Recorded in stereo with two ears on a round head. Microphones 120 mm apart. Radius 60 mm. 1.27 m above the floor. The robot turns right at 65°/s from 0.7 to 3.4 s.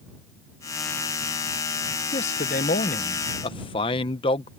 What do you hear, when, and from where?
2.1 s a man speaking: 55° left; by 4.5 s 135° left